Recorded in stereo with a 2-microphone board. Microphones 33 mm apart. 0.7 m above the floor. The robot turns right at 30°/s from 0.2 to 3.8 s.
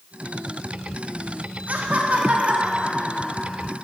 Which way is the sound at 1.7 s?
70° right.